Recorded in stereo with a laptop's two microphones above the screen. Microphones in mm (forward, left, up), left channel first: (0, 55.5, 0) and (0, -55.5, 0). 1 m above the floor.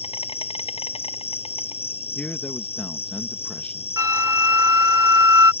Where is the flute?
35° right (ahead or behind).